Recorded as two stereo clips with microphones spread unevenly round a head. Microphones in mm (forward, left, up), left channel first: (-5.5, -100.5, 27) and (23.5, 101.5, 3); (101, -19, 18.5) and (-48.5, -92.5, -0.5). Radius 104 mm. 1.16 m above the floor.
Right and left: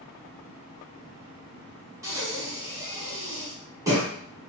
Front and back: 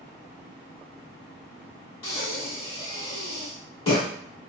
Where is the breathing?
5° left, 1.3 m.